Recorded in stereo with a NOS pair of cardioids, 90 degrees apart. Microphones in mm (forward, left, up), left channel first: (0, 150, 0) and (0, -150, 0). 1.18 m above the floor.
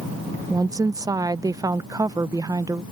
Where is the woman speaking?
10° right.